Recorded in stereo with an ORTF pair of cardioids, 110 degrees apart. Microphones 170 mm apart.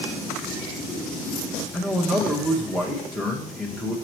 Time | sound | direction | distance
1.7 | a man speaking | straight ahead | 1.3 m